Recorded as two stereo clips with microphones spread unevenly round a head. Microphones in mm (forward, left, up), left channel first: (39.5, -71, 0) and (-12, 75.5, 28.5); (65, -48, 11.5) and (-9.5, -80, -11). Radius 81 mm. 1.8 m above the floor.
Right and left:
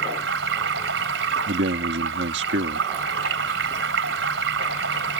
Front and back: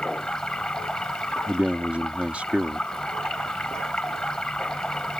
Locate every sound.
0.0 s running water: 105° left
1.5 s a man speaking: 115° left